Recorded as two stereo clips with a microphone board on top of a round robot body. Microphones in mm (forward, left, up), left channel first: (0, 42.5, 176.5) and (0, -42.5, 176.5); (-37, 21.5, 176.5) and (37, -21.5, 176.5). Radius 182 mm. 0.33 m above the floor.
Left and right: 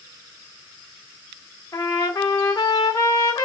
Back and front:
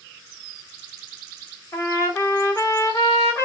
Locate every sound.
1.7 s a trumpet: 110° left, 1.8 m